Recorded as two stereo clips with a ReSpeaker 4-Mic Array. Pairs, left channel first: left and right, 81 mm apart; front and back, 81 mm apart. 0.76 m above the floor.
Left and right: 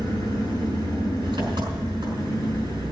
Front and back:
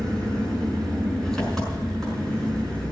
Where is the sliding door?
I don't hear a sliding door.